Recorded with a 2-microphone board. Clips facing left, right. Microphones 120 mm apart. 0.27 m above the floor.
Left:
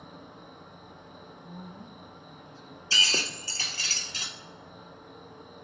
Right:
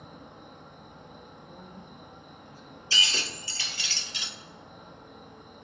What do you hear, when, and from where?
0.0 s an insect: centre (ahead or behind), 1.6 m
1.4 s a woman speaking: 30° left (ahead or behind), 2 m
2.9 s breaking glass: 40° left (ahead or behind), 1.1 m